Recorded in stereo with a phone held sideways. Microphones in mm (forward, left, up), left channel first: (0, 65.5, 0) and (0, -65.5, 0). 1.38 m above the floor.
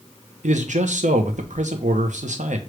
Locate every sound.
0.4 s a man speaking: 70° right (ahead or behind), 0.8 m